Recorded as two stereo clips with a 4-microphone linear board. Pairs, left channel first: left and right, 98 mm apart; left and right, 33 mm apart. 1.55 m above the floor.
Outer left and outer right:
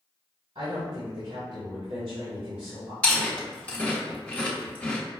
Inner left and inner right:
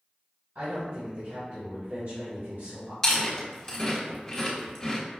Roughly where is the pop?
No pop in this recording.